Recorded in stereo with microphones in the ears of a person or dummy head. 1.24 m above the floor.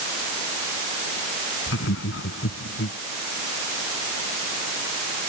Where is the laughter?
80° left; by 3.0 s 75° left (ahead or behind).